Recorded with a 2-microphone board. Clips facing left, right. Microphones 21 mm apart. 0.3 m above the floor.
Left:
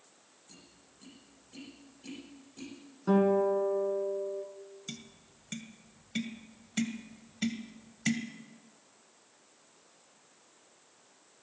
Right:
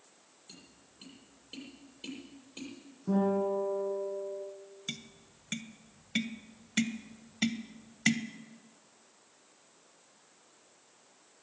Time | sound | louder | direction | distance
0.5 | tapping | right 3 dB | 60° right (ahead or behind) | 8 m
3.1 | a guitar | left 4 dB | 65° left (ahead or behind) | 3 m
4.9 | tapping | right 8 dB | 30° right (ahead or behind) | 0.9 m